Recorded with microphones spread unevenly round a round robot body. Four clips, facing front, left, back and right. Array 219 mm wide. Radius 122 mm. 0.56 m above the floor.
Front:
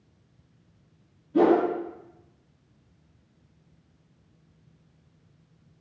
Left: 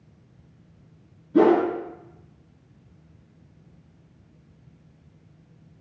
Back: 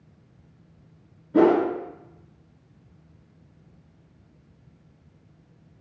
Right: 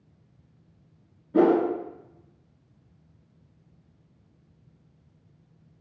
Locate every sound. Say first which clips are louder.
1.3 s a whoosh: left 2 dB, back 2 dB; 140° right, 1.0 m